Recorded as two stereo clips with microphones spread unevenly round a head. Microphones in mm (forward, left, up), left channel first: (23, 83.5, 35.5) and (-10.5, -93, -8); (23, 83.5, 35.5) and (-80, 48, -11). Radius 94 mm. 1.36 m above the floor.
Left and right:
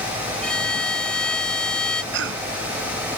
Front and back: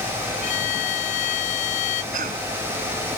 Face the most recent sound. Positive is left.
turn(degrees=-130)